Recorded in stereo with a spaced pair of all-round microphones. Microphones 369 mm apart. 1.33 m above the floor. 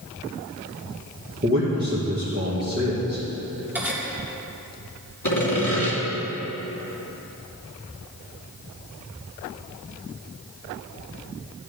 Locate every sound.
1.4 s a man speaking: 30° right (ahead or behind), 1.9 m
3.8 s cutlery clinking: 5° right (ahead or behind), 2 m
5.2 s sawing: 60° left (ahead or behind), 2.5 m